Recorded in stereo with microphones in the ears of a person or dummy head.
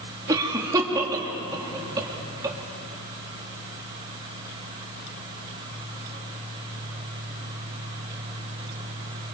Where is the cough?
20° right (ahead or behind), 3.5 m.